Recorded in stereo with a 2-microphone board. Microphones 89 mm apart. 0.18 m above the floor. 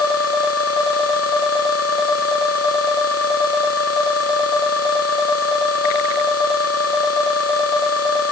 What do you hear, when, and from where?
Only background noise.